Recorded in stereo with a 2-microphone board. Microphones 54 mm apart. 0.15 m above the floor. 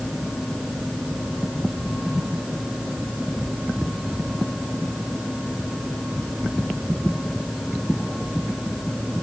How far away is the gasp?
I don't hear a gasp.